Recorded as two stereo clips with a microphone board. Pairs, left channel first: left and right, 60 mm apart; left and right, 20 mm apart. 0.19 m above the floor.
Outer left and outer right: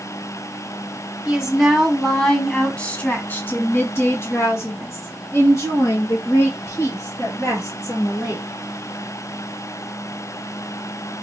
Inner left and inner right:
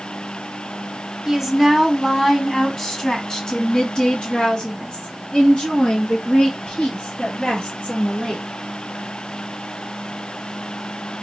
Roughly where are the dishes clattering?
No dishes clattering in this recording.